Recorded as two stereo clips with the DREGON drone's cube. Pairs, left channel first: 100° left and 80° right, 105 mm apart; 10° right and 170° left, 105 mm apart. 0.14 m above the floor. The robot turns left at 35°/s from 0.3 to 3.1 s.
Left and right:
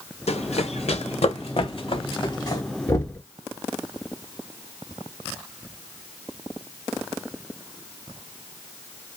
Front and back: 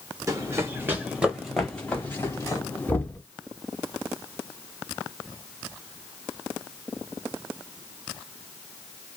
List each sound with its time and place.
0.3 s running footsteps: 110° left, 1.1 m; by 2.6 s 45° left, 2.5 m
2.9 s knocking: 55° left, 1.2 m; by 3.2 s 50° left, 1.2 m